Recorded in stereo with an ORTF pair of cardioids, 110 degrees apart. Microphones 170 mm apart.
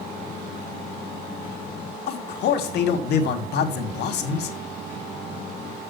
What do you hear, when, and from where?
2.1 s a man speaking: 70° left, 1.9 m